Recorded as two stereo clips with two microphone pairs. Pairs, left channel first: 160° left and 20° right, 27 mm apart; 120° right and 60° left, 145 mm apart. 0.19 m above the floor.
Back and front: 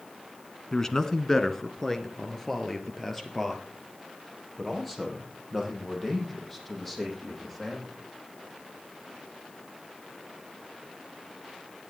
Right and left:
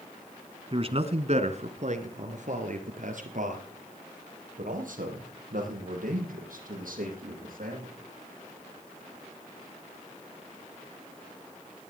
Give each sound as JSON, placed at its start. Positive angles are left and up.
{"t": 0.7, "sound": "a man speaking", "azimuth_deg": 90, "distance_m": 1.4}